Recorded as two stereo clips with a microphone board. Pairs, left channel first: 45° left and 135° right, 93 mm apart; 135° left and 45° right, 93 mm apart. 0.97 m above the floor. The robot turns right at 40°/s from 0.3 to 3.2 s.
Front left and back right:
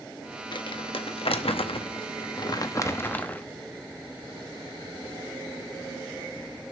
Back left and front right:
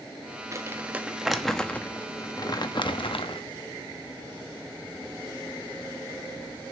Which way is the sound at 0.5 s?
10° left.